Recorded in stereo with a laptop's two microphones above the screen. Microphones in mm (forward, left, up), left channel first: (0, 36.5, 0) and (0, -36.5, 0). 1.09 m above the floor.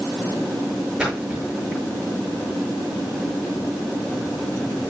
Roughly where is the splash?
Centre.